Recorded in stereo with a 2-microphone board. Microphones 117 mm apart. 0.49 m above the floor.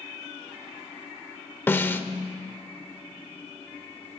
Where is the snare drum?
15° left (ahead or behind), 1.0 m.